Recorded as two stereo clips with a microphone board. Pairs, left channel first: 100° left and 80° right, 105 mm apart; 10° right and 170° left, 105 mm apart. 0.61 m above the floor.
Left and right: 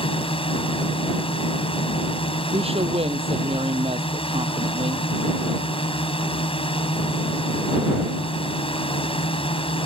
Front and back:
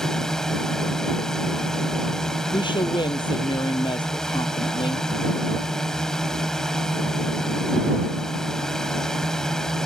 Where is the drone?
75° left.